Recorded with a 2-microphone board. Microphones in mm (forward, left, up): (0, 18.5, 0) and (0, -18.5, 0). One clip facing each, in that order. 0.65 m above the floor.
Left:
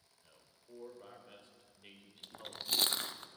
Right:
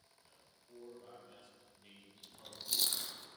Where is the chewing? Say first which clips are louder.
Left 5 dB; 50° left (ahead or behind), 0.5 m.